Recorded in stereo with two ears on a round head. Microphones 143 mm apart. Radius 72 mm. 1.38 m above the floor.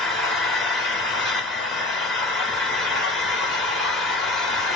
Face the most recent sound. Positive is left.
turn(degrees=0)  # may be behind; listen again after turning